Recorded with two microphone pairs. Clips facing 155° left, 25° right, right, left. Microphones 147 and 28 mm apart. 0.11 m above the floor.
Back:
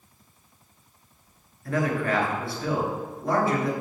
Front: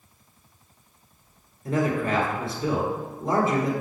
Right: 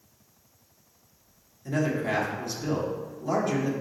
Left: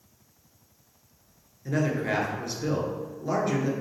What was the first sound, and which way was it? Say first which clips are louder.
A man speaking: front 1 dB, even; 25° left.